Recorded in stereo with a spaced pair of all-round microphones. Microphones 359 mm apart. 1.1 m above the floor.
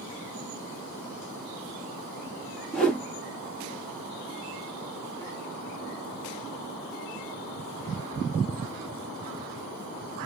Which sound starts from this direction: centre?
A whoosh, at 2.7 s.